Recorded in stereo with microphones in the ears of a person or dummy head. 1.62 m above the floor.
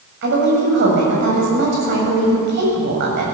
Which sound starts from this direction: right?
A woman speaking, at 0.2 s.